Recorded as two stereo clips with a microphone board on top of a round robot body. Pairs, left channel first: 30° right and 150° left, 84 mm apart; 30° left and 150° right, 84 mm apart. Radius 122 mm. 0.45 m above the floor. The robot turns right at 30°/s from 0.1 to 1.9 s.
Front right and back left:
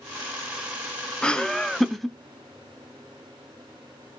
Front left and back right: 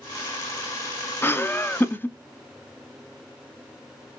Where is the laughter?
35° left, 0.7 m; by 2.2 s 55° left, 0.7 m.